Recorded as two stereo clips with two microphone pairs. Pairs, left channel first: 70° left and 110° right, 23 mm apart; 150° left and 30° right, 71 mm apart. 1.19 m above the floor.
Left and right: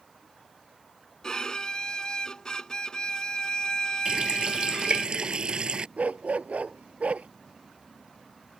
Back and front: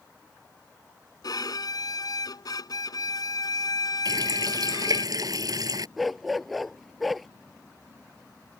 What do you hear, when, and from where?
1.2 s a violin: 125° left
4.0 s a running tap: 60° right
6.0 s a dog barking: 120° right